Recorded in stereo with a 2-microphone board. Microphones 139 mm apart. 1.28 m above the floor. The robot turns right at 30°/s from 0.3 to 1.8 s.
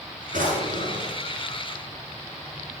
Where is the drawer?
85° right, 8 m; by 1.2 s 60° right (ahead or behind), 8 m.